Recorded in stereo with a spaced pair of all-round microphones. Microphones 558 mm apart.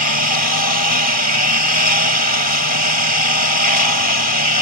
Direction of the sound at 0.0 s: 40° left (ahead or behind).